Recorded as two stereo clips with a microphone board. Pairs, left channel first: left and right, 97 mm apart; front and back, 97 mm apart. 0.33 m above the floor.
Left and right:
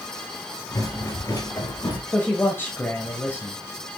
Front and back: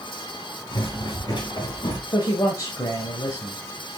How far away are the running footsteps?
About 5 m.